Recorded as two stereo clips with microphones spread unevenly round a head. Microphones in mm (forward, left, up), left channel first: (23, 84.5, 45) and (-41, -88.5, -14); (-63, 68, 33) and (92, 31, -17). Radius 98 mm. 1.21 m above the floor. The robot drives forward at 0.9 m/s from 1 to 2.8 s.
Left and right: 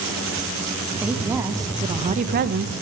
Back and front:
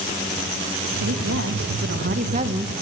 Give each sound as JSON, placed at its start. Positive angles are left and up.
{"t": 1.0, "sound": "a woman speaking", "azimuth_deg": -25, "distance_m": 1.8}